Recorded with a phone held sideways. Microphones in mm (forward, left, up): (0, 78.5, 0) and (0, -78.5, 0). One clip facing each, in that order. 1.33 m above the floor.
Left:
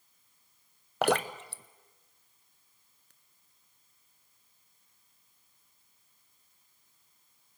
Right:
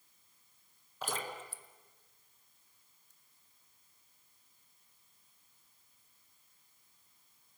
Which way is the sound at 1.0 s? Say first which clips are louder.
Left 13 dB; 75° left (ahead or behind).